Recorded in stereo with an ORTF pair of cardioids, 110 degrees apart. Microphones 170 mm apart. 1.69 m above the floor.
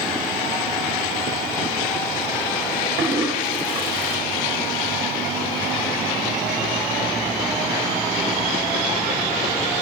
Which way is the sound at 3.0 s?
35° right.